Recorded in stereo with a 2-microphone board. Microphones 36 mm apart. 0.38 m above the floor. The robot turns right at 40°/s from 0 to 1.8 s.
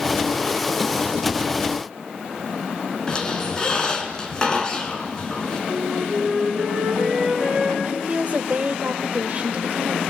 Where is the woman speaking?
35° right (ahead or behind), 1.3 m.